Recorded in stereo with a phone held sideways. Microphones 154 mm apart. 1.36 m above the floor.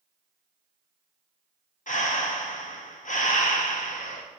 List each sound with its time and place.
1.9 s breathing: 55° left (ahead or behind), 0.8 m